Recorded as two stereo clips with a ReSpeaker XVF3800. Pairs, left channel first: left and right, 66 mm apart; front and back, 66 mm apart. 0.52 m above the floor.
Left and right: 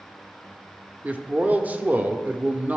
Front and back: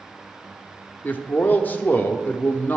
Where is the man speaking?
45° right, 0.8 m.